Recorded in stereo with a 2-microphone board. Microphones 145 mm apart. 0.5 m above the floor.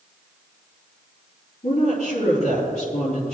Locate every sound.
1.6 s a woman speaking: 80° left, 5 m